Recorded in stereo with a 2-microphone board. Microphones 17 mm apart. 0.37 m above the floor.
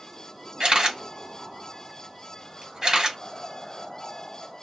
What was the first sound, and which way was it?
A camera shutter, 45° right (ahead or behind).